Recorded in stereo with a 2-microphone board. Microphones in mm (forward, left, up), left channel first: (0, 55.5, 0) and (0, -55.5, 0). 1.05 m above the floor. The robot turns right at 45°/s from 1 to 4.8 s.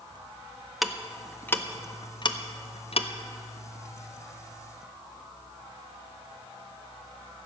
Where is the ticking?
Centre (ahead or behind), 0.6 m; by 3.1 s 60° left (ahead or behind), 0.6 m.